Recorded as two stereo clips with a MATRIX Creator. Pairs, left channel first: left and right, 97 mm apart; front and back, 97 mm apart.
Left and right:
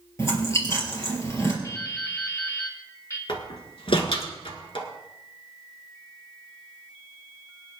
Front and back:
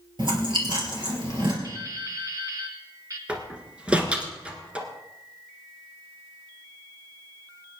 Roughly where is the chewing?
Behind left.